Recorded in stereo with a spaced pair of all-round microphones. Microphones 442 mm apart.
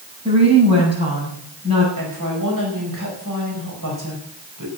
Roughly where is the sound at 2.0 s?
Right.